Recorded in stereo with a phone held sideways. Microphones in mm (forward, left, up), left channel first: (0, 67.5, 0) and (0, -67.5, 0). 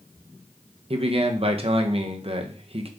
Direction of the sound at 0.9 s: 45° right (ahead or behind).